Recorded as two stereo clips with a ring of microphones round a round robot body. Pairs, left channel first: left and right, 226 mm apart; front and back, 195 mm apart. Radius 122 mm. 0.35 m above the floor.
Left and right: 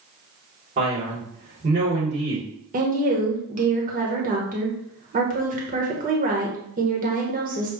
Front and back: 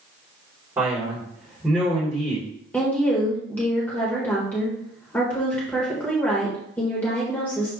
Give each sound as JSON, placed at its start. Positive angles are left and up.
{"t": 0.8, "sound": "a man speaking", "azimuth_deg": -110, "distance_m": 2.0}
{"t": 2.7, "sound": "a woman speaking", "azimuth_deg": -75, "distance_m": 1.3}